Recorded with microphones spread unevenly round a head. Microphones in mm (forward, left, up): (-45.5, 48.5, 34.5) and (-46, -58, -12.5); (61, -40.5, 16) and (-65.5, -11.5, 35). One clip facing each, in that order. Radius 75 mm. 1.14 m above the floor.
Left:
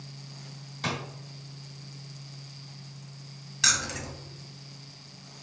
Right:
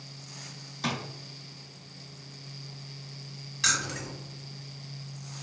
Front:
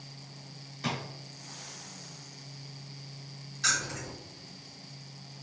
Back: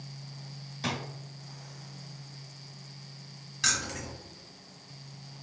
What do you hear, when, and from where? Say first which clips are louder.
0.8 s a drawer: right 1 dB, even; 145° left, 1.0 m
3.6 s keys jangling: even, even; 125° left, 1.4 m